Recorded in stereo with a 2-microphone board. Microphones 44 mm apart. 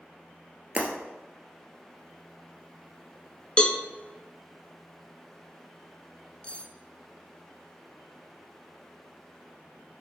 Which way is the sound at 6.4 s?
25° left (ahead or behind).